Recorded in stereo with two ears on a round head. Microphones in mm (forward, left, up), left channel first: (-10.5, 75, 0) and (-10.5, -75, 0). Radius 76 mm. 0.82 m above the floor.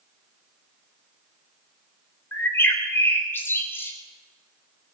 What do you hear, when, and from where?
2.3 s a bird: 15° left (ahead or behind), 3.5 m